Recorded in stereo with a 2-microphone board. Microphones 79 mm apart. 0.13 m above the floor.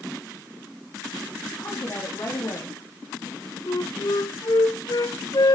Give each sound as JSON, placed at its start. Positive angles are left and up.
{"t": 1.6, "sound": "a woman speaking", "side_deg": 50, "distance_m": 5.5}
{"t": 3.7, "sound": "a flute", "side_deg": 60, "distance_m": 0.8}